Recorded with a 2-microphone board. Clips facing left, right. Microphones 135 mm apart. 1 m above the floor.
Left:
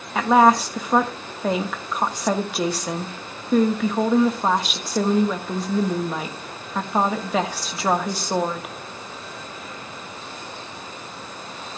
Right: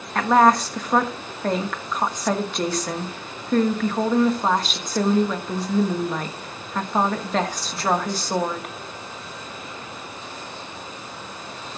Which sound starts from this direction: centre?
A woman speaking, at 0.1 s.